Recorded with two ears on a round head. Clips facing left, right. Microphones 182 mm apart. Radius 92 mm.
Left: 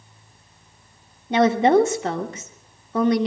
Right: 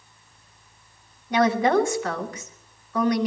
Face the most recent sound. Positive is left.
turn(degrees=20)  # may be behind; listen again after turning